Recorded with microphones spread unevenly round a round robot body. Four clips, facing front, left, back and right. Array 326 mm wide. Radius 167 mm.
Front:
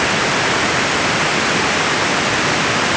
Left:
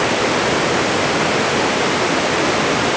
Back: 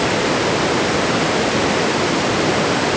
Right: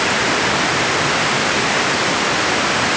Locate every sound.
Only background noise.